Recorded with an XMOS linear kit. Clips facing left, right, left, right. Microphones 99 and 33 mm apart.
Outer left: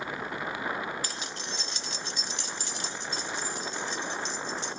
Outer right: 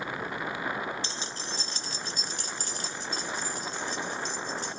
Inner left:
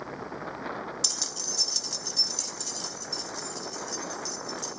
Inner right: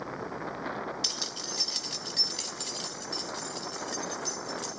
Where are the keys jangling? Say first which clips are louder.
Even, even; 25° right (ahead or behind), 0.5 m; by 4.8 s 45° right (ahead or behind), 3 m.